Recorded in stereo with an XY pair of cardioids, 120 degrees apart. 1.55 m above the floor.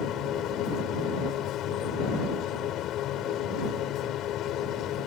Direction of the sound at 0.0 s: 70° left.